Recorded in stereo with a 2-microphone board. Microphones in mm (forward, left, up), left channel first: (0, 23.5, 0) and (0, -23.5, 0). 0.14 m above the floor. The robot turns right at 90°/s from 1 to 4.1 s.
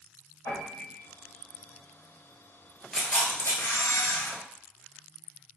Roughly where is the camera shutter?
Ahead.